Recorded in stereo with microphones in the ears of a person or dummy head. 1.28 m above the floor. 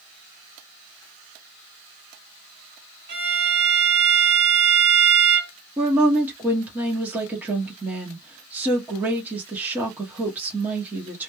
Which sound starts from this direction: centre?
A woman speaking, at 5.8 s.